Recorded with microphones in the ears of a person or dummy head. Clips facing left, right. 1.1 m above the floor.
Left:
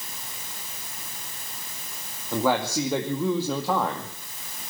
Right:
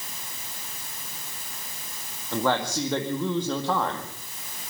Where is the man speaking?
15° left (ahead or behind), 2 m.